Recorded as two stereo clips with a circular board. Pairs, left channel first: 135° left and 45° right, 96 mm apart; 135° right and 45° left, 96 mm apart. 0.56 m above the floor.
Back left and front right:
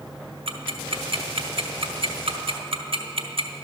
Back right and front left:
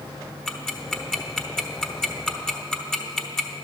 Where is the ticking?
50° right, 0.8 m.